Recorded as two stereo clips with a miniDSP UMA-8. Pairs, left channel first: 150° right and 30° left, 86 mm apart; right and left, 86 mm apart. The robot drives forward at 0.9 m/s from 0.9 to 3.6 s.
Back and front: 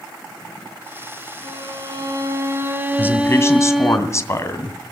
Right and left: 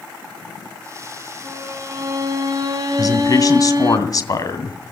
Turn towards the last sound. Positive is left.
turn(degrees=-110)